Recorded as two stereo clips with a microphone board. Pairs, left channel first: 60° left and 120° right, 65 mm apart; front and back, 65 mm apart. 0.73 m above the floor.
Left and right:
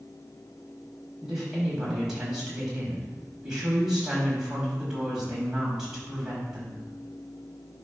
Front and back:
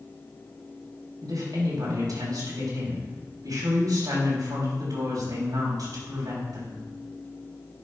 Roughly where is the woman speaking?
Behind left.